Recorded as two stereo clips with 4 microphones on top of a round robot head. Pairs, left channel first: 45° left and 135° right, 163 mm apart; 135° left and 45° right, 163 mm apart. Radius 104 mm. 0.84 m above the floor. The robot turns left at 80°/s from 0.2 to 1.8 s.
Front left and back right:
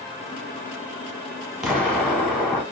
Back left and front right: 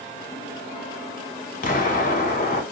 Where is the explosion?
140° left, 1.0 m; by 2.6 s 125° left, 1.0 m.